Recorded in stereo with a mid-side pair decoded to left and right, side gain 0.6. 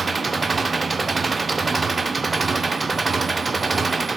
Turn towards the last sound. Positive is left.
turn(degrees=-20)